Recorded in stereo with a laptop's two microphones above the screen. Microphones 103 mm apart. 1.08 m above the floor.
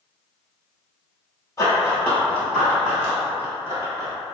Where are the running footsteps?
25° left (ahead or behind), 1.2 m; by 4.1 s 30° right (ahead or behind), 1.3 m.